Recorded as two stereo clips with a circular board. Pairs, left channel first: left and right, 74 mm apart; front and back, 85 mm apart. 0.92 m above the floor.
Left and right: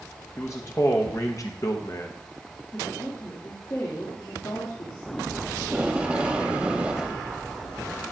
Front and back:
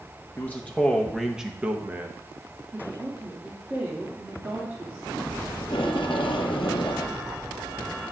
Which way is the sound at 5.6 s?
15° right.